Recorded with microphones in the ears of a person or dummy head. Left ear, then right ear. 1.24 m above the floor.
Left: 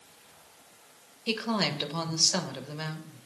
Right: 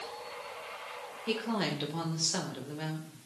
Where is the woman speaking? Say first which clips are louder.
Left 4 dB; 25° left (ahead or behind), 0.8 m.